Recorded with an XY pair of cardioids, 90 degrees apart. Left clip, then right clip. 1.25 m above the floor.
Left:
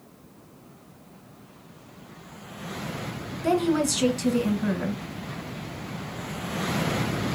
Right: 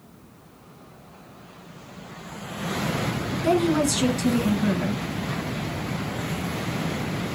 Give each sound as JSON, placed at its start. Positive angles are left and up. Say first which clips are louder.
{"t": 3.4, "sound": "a woman speaking", "louder": "right 2 dB", "azimuth_deg": 5, "distance_m": 1.1}